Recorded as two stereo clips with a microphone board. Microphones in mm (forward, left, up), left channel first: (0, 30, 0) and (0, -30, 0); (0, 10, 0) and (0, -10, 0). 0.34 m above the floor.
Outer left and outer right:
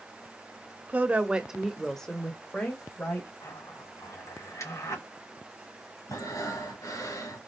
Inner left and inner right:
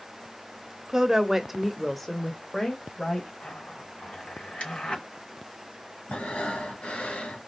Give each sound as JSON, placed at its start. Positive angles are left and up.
{"t": 0.9, "sound": "a woman speaking", "side_deg": -30, "distance_m": 0.9}
{"t": 3.4, "sound": "a zipper", "side_deg": 65, "distance_m": 3.0}
{"t": 6.1, "sound": "breathing", "side_deg": 75, "distance_m": 2.0}